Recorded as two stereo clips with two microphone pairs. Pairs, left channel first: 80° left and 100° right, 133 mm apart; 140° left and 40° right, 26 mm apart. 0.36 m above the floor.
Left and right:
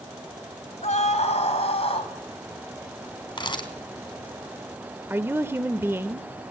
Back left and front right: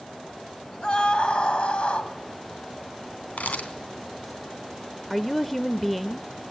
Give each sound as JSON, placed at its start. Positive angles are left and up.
{"t": 0.8, "sound": "a scream", "azimuth_deg": 95, "distance_m": 3.0}
{"t": 3.4, "sound": "a camera shutter", "azimuth_deg": 130, "distance_m": 3.0}
{"t": 5.1, "sound": "a woman speaking", "azimuth_deg": -135, "distance_m": 0.8}